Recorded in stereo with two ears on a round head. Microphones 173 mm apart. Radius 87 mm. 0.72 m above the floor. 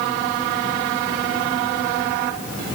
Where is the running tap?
I don't hear a running tap.